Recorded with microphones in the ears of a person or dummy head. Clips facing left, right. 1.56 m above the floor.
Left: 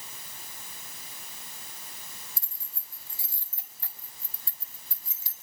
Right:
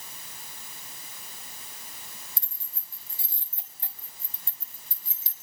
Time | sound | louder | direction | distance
2.4 | keys jangling | right 1 dB | 25° right (ahead or behind) | 4.5 m